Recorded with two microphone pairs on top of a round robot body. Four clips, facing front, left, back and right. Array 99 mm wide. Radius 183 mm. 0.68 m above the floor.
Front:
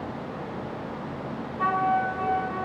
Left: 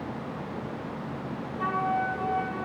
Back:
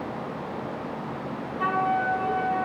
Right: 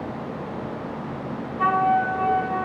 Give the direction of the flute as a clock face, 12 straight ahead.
3 o'clock.